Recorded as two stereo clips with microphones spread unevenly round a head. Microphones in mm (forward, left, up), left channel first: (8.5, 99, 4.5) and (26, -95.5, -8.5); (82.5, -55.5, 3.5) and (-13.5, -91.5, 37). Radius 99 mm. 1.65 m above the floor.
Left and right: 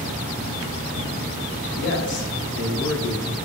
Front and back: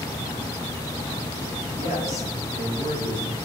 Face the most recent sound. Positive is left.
turn(degrees=60)